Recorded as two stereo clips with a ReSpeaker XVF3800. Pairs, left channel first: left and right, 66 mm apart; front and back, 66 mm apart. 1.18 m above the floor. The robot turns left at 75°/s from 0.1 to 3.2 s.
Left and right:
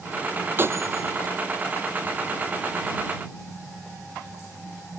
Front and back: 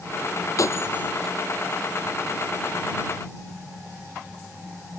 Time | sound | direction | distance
0.6 | breaking glass | 35° right | ?